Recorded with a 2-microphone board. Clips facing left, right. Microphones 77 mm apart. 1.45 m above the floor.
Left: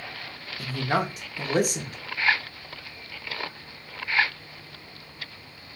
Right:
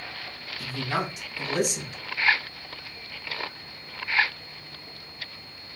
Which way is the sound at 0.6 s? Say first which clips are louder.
Left 3 dB; 45° left (ahead or behind).